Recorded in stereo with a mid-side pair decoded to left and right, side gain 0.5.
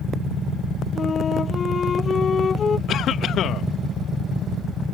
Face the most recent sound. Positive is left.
turn(degrees=60)